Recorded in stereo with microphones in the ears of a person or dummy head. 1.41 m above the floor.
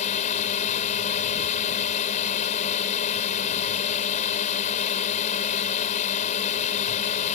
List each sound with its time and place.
0.0 s a drone: 40° left (ahead or behind)